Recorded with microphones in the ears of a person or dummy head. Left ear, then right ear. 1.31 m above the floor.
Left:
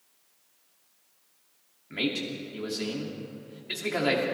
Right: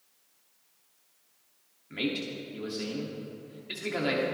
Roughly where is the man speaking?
Centre.